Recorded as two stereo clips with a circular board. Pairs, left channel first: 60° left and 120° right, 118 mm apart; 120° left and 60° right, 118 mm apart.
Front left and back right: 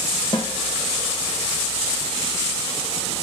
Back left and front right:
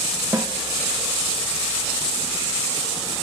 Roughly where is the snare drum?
Ahead.